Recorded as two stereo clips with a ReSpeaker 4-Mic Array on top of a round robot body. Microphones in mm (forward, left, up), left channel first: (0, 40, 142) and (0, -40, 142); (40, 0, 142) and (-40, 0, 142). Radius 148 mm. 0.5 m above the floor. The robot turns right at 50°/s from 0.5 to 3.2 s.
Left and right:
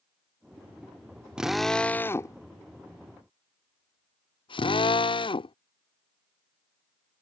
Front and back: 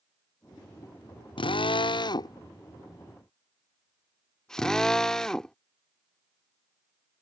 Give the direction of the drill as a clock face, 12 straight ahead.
12 o'clock.